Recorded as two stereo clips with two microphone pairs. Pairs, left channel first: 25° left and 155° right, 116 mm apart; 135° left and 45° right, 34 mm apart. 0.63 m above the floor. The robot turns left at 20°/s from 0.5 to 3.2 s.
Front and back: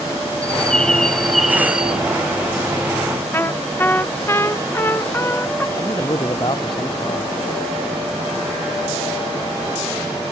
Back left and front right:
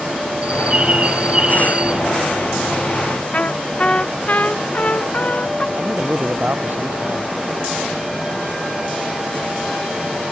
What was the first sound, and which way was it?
A bird, 45° right.